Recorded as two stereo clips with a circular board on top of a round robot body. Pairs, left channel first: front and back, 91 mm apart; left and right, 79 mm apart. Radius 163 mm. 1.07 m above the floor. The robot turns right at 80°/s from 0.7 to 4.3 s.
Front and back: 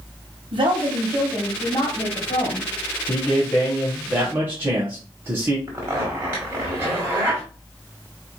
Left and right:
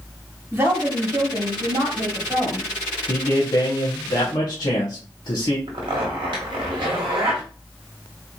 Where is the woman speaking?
160° right, 2 m; by 2.7 s straight ahead, 2 m.